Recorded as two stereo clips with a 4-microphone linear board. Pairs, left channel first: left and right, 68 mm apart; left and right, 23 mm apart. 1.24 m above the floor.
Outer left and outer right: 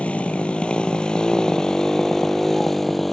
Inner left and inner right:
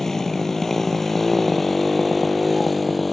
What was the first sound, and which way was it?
A motorcycle, 15° left (ahead or behind).